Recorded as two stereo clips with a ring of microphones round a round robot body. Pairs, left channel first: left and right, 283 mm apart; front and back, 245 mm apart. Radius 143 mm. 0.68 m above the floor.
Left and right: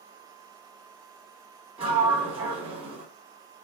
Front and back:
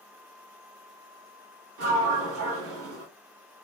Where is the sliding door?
160° right, 1.7 m.